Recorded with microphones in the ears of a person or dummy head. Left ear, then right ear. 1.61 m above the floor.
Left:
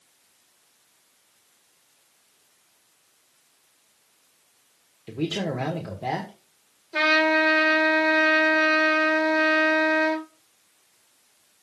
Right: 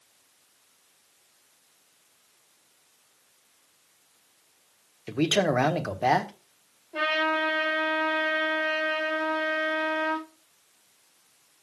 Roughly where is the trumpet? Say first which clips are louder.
Left 6 dB; left.